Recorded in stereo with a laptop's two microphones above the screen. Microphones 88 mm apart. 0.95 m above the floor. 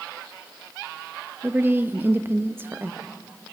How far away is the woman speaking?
About 0.9 m.